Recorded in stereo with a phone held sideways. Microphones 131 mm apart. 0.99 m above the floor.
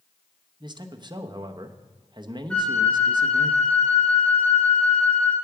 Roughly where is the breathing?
I don't hear breathing.